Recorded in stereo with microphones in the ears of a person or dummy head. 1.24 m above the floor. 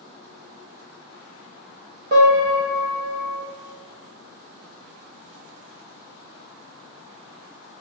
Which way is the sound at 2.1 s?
45° right (ahead or behind).